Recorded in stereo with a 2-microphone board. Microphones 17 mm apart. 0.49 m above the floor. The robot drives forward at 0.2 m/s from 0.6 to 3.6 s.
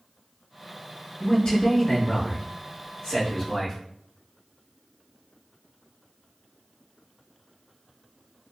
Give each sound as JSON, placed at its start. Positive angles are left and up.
{"t": 1.2, "sound": "a man speaking", "side_deg": 55, "distance_m": 1.7}